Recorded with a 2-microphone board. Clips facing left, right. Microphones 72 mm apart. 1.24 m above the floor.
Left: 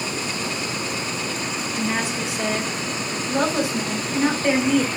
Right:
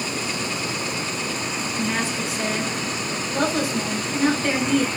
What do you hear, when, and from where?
1.8 s a woman speaking: 15° left (ahead or behind), 5 m